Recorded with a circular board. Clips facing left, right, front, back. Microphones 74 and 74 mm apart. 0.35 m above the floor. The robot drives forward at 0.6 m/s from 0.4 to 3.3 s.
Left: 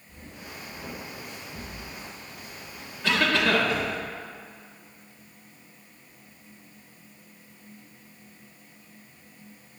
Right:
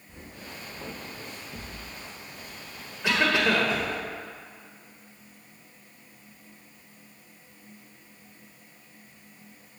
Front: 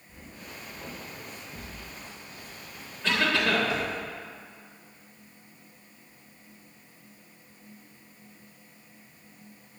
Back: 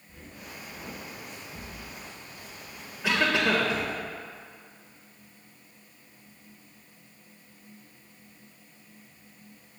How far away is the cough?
About 1.1 m.